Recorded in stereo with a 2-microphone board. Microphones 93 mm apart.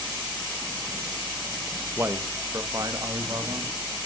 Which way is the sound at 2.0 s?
25° right (ahead or behind).